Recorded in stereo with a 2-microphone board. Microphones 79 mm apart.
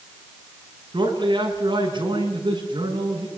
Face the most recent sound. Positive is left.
turn(degrees=-80)